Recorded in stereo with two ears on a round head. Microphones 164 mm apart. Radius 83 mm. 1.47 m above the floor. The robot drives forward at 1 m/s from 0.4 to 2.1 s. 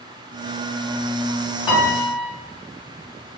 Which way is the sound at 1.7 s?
30° left (ahead or behind).